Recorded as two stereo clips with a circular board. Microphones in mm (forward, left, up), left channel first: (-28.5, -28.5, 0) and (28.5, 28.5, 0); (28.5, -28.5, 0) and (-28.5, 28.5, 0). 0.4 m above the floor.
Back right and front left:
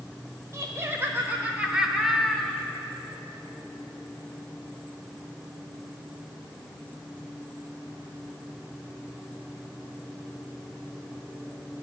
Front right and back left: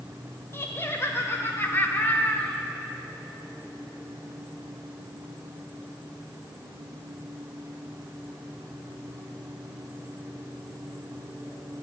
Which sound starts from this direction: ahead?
Laughter, at 0.5 s.